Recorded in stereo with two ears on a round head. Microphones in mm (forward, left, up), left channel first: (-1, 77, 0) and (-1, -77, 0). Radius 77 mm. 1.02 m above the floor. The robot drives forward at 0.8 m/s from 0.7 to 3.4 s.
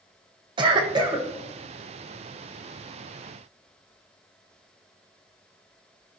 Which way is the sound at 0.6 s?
30° right (ahead or behind).